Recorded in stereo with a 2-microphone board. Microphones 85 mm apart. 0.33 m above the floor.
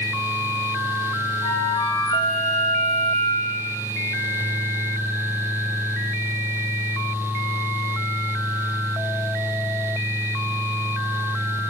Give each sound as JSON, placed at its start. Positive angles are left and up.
{"t": 1.4, "sound": "a flute", "side_deg": 75, "distance_m": 3.5}